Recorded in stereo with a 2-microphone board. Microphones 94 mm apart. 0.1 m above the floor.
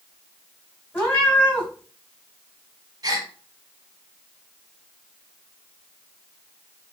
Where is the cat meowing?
20° left (ahead or behind), 2.5 m.